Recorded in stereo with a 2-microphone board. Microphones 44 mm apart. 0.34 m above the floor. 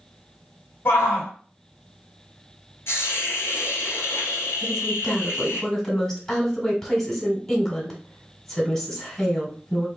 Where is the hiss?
70° left (ahead or behind), 1.5 m.